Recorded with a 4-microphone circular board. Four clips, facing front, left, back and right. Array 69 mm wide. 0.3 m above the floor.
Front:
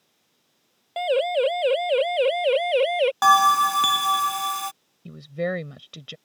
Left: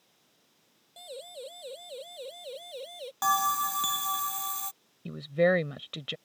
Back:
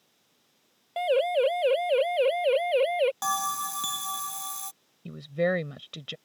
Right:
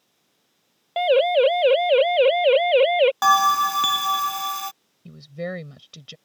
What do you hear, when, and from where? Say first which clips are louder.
1.0 s a siren: right 27 dB, front 2 dB; 85° right; by 3.1 s 75° right
3.2 s a bell: right 10 dB, front 14 dB; 35° right
5.0 s a woman speaking: left 7 dB, back 1 dB; 100° left